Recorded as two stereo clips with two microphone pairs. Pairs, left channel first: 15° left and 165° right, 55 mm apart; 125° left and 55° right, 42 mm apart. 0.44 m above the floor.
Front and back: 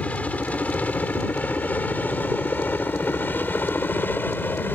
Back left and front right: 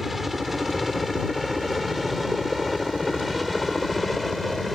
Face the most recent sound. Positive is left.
turn(degrees=40)